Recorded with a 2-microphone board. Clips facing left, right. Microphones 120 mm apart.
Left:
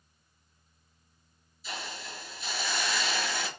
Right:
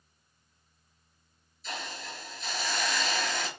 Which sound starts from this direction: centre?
A hiss, at 1.6 s.